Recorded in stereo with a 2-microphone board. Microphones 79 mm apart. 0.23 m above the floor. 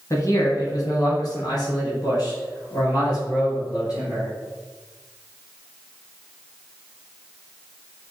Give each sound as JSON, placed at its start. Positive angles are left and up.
{"t": 0.1, "sound": "a man speaking", "side_deg": 40, "distance_m": 1.3}